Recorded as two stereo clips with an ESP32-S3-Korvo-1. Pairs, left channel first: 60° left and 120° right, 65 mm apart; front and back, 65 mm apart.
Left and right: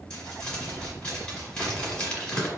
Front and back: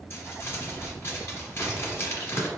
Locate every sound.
0.1 s crumpling: straight ahead, 1.6 m